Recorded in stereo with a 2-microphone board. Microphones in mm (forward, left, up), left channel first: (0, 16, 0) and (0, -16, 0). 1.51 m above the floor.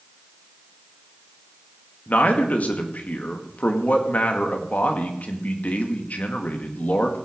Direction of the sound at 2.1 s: 60° left (ahead or behind).